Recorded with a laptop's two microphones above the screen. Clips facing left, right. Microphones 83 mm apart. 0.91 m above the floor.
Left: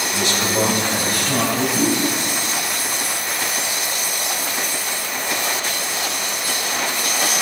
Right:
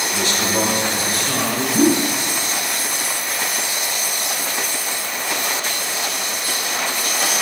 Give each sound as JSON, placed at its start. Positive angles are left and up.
{"t": 0.1, "sound": "a man speaking", "side_deg": -45, "distance_m": 1.6}
{"t": 1.7, "sound": "a whoosh", "side_deg": -65, "distance_m": 0.7}